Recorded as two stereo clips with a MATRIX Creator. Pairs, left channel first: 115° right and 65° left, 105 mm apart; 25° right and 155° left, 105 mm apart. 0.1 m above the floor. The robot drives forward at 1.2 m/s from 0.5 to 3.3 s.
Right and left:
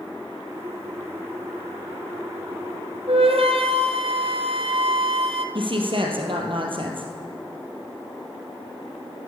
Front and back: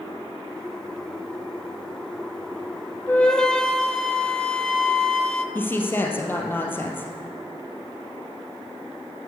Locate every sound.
3.1 s a flute: 50° left, 1.2 m; by 5.5 s 60° left, 1.1 m
5.5 s a woman speaking: 45° left, 2.5 m